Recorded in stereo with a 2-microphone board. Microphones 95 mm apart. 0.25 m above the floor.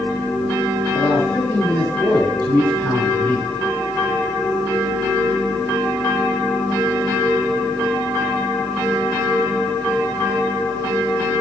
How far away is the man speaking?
About 3.5 m.